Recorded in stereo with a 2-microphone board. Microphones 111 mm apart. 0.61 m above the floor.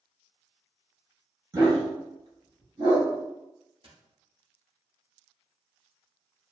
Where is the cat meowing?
No cat meowing in this recording.